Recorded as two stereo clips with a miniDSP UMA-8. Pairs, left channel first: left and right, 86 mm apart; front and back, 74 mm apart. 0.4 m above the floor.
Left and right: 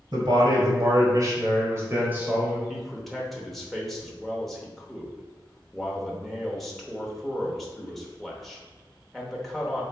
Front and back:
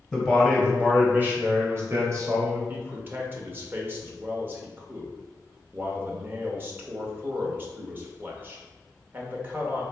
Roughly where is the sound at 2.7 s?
Behind.